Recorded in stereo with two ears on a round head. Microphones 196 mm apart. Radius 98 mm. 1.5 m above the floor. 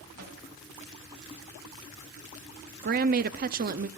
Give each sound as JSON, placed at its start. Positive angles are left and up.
{"t": 0.2, "sound": "a microwave", "side_deg": -80, "distance_m": 7.5}
{"t": 2.8, "sound": "a woman speaking", "side_deg": -40, "distance_m": 0.6}